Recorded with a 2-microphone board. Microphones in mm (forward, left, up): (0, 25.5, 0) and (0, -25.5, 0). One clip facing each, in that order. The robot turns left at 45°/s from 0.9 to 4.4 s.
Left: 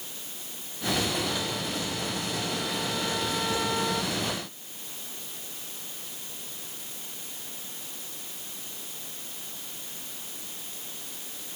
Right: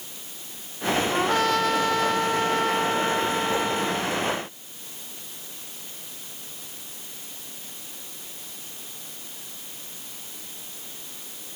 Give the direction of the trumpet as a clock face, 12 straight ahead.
2 o'clock.